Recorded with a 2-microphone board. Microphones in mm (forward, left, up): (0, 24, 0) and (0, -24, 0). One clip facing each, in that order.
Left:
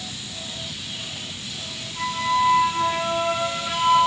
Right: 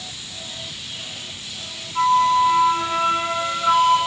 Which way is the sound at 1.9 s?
45° right (ahead or behind).